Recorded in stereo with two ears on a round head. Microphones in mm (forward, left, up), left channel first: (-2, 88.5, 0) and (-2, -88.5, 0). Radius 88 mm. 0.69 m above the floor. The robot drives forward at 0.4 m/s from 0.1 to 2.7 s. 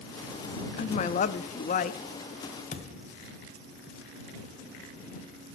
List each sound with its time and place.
0.8 s a woman speaking: 30° left (ahead or behind), 0.6 m; by 2.0 s 35° left (ahead or behind), 0.6 m
2.7 s a thud: 40° left (ahead or behind), 1.5 m